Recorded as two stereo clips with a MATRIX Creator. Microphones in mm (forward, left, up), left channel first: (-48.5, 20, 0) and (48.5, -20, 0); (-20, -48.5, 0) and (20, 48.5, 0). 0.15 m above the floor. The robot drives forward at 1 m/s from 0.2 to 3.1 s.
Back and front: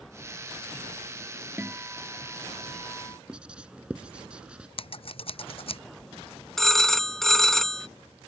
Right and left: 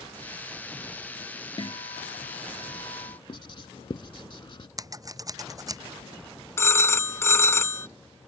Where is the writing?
100° right.